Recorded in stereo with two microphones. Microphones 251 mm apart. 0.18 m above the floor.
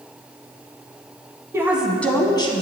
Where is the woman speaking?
10° right (ahead or behind), 1.1 m; by 2.6 s 25° left (ahead or behind), 1.1 m.